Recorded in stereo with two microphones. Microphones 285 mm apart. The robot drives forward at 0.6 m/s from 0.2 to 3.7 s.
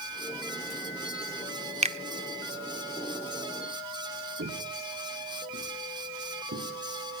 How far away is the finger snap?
About 0.6 m.